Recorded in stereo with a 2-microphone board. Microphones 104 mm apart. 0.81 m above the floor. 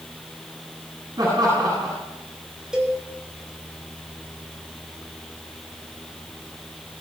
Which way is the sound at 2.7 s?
5° right (ahead or behind).